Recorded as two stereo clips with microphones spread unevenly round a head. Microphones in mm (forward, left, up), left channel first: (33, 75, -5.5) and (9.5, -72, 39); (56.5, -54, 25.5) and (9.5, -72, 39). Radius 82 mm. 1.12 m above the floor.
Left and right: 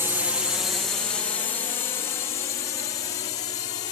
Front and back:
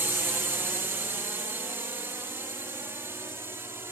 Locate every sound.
0.0 s a drone: 165° left; by 3.9 s 140° left